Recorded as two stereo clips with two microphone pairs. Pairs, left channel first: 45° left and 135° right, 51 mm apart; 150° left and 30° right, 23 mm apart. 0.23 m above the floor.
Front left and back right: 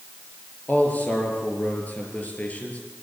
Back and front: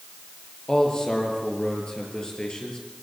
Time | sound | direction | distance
0.7 | a man speaking | 105° left | 5.5 m